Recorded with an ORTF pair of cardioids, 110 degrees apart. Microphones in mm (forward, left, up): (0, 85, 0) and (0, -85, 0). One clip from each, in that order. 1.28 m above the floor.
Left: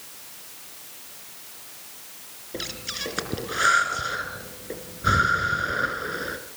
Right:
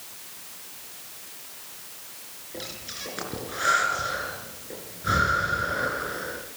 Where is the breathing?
45° left, 4 m.